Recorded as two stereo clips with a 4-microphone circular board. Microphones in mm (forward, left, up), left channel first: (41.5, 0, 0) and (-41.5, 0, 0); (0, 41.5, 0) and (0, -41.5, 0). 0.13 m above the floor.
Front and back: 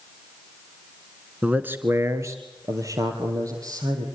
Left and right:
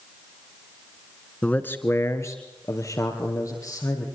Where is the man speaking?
130° left, 1.2 m; by 4.0 s 135° left, 4.5 m.